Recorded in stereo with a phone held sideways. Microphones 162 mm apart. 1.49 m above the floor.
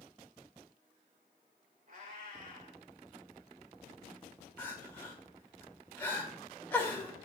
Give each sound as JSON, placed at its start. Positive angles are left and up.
{"t": 1.9, "sound": "a cat meowing", "side_deg": -55, "distance_m": 3.0}
{"t": 4.6, "sound": "crying", "side_deg": 15, "distance_m": 1.8}